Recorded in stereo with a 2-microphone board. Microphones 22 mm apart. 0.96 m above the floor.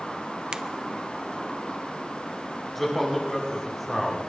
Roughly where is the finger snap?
Right.